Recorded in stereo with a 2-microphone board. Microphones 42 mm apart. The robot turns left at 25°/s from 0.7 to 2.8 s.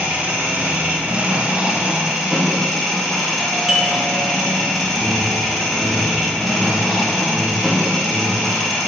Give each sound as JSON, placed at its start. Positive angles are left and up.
{"t": 0.0, "sound": "an engine running", "azimuth_deg": -130, "distance_m": 2.5}
{"t": 3.4, "sound": "a doorbell", "side_deg": -15, "distance_m": 1.3}
{"t": 4.9, "sound": "an alarm", "side_deg": -5, "distance_m": 3.0}